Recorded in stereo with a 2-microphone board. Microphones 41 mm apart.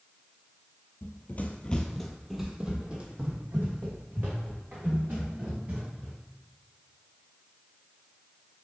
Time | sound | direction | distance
1.0 | running footsteps | 50° left (ahead or behind) | 0.6 m